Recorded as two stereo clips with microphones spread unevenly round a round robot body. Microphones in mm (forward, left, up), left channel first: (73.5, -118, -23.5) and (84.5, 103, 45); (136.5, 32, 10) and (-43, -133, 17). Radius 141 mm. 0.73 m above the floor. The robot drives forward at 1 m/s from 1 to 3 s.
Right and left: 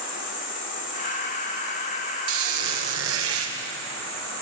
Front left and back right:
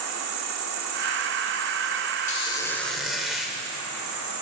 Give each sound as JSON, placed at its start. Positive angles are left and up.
{"t": 0.0, "sound": "an insect", "azimuth_deg": -140, "distance_m": 2.5}
{"t": 2.3, "sound": "a squeak", "azimuth_deg": 110, "distance_m": 1.3}